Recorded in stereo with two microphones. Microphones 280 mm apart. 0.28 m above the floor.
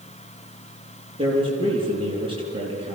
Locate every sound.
1.2 s a man speaking: 20° right (ahead or behind), 6.5 m